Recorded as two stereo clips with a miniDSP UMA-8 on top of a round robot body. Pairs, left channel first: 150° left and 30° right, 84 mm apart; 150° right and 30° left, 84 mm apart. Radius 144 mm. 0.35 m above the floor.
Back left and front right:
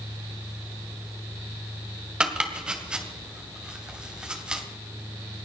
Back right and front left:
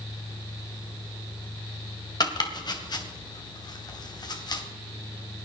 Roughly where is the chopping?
Right.